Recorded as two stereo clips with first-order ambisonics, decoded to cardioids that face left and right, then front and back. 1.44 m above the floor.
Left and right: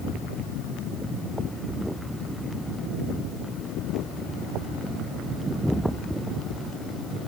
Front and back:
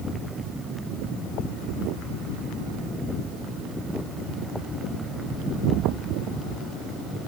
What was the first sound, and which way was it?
Only background noise.